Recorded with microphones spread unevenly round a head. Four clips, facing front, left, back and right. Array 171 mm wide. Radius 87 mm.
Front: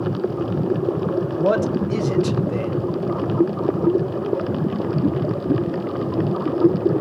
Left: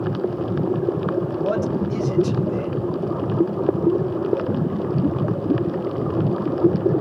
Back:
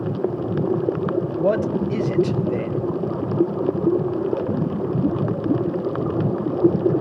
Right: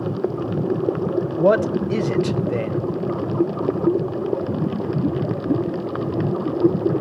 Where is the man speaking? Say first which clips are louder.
Right 5 dB, front 1 dB; 95° right, 1.2 m.